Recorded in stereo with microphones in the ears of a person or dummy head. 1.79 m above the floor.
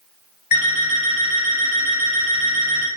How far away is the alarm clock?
About 1.6 m.